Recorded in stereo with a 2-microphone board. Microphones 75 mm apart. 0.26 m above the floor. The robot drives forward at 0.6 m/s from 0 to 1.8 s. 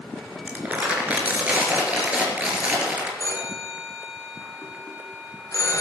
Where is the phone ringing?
45° left (ahead or behind), 3 m.